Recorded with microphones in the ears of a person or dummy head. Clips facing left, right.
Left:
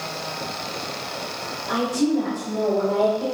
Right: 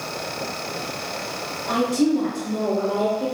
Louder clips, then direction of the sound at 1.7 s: Right 2 dB; 80° right.